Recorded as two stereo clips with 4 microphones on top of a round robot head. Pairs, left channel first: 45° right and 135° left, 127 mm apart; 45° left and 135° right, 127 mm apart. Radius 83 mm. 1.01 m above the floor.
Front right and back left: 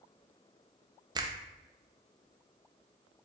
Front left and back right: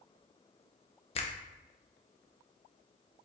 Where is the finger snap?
80° left, 0.6 m.